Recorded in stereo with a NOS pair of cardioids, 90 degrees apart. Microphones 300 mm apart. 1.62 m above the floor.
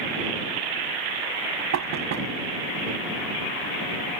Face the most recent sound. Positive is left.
turn(degrees=-65)